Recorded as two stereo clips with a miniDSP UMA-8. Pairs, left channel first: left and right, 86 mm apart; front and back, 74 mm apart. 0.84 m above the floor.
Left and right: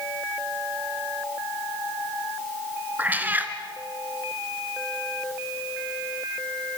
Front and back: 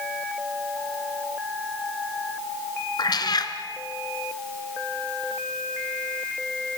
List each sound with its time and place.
3.0 s a cat meowing: 20° right, 2 m